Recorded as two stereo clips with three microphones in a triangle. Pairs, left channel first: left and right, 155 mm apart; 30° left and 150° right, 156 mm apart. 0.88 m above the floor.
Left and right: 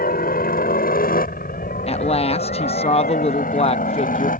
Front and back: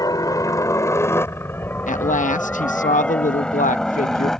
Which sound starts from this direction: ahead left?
A woman speaking, at 1.9 s.